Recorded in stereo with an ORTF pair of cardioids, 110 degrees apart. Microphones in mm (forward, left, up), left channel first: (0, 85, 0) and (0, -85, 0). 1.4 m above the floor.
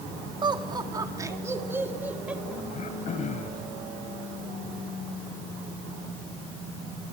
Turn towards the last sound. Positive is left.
turn(degrees=45)